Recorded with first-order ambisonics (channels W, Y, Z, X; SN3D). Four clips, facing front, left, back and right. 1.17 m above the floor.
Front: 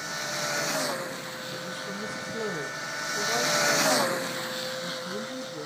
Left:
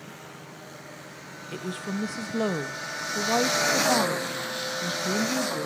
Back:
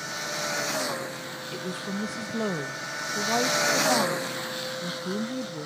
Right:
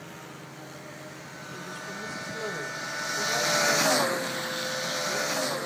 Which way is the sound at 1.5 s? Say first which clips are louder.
Left 6 dB, back 5 dB; 115° left.